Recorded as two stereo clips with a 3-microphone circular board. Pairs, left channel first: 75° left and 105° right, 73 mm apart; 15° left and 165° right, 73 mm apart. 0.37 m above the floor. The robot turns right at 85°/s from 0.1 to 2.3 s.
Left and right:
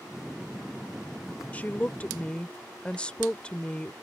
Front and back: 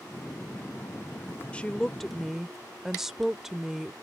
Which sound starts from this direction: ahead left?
A woman speaking, at 1.5 s.